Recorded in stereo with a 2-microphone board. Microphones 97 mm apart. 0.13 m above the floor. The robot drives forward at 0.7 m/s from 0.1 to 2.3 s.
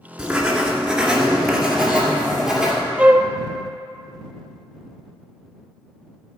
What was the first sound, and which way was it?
Writing, 10° right (ahead or behind).